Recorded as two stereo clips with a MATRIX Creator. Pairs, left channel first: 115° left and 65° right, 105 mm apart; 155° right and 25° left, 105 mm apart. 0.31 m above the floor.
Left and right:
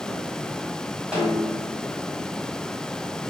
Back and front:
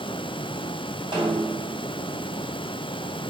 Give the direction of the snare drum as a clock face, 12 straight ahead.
12 o'clock.